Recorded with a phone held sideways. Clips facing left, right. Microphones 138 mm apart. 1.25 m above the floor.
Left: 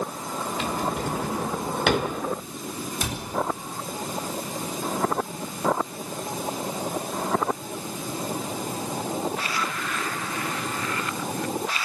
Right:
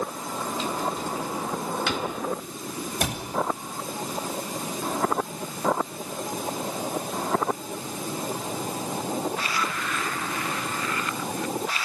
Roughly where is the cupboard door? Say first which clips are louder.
Right 5 dB; right.